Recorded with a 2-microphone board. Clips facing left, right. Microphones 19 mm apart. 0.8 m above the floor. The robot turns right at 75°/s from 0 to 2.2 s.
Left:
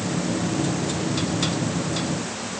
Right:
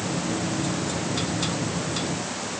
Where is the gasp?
No gasp in this recording.